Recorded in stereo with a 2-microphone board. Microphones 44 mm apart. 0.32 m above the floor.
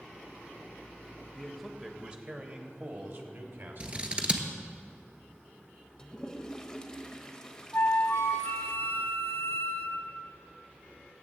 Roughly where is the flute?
Left.